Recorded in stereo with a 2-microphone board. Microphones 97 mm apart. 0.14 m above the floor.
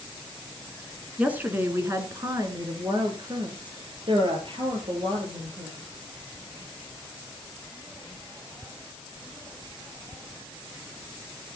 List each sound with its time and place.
1.2 s a woman speaking: 10° right (ahead or behind), 1.8 m; by 5.8 s 65° right (ahead or behind), 4.5 m